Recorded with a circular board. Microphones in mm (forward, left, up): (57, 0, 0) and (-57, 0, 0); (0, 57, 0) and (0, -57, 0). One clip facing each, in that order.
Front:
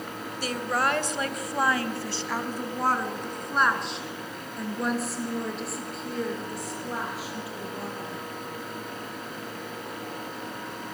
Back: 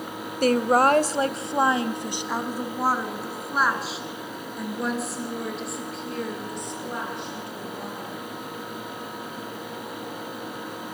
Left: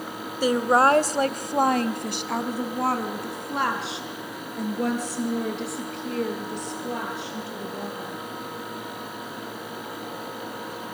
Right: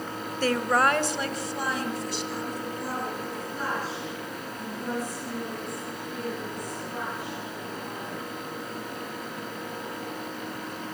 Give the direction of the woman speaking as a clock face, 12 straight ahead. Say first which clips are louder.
Back 9 dB, left 4 dB; 6 o'clock.